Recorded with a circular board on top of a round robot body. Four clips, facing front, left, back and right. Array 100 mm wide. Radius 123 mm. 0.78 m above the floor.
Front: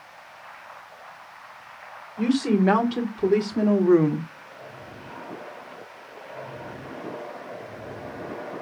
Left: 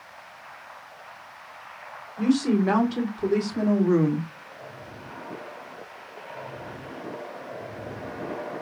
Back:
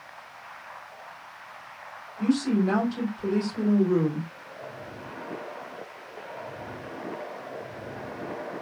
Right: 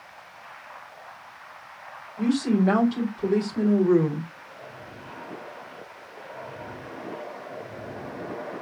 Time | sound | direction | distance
2.2 | a woman speaking | 5° left | 3.5 m